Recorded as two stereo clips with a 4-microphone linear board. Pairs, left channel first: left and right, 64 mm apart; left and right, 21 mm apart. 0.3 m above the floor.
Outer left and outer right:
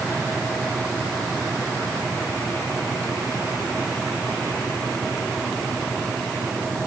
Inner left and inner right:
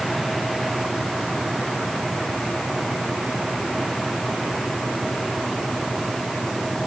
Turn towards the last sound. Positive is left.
No sound to turn to.